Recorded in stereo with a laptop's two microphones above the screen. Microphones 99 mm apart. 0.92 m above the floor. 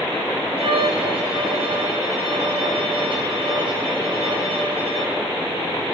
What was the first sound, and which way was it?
A violin, 65° right (ahead or behind).